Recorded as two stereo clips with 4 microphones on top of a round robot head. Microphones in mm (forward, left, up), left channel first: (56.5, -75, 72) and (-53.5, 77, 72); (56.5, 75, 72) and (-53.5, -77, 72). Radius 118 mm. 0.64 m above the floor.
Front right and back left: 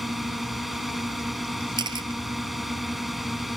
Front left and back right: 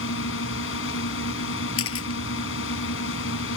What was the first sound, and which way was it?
A drone, 35° left.